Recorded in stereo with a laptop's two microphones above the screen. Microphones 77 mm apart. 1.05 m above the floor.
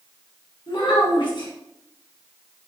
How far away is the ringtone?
No ringtone in this recording.